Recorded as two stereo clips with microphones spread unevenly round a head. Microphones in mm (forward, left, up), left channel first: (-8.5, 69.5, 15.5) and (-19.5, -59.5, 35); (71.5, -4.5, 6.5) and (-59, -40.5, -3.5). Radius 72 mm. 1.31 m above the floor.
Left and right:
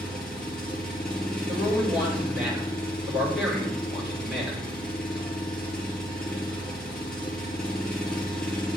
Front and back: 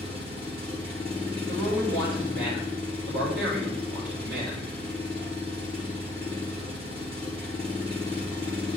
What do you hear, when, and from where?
0.0 s an engine running: 170° left, 2 m
1.5 s a man speaking: 175° right, 4.5 m